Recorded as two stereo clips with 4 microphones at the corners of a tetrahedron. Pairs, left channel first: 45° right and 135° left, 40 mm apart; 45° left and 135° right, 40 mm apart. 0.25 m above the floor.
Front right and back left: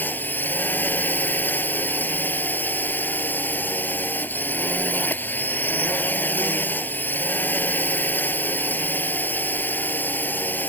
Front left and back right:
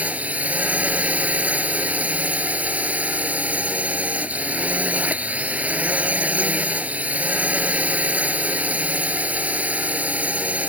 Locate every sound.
0.0 s a drone: 85° right